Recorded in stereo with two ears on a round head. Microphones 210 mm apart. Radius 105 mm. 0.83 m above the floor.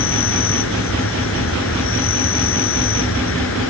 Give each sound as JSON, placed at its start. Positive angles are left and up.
{"t": 0.0, "sound": "an insect", "side_deg": 60}